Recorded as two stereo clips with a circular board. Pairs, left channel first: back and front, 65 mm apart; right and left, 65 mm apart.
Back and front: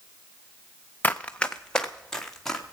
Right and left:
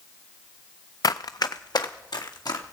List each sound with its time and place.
1.0 s running footsteps: 115° right, 0.5 m; by 2.8 s 95° right, 2.5 m